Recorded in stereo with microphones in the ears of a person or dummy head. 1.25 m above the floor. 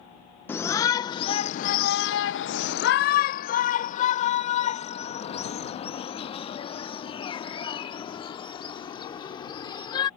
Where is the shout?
10° left (ahead or behind); by 10.1 s 30° left (ahead or behind).